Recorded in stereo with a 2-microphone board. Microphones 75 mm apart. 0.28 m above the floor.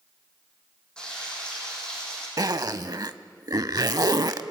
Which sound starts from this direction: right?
A zipper, at 2.4 s.